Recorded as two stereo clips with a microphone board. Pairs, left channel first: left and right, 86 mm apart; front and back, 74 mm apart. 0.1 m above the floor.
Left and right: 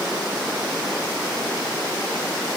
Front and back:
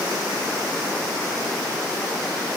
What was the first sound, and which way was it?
Only background noise.